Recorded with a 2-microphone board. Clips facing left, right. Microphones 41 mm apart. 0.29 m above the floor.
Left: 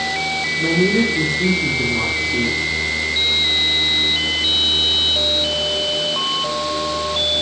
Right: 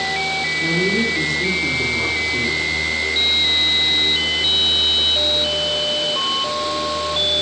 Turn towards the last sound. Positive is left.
turn(degrees=25)  # may be behind; listen again after turning